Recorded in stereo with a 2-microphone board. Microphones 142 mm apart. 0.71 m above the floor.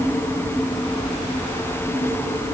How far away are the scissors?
I don't hear scissors.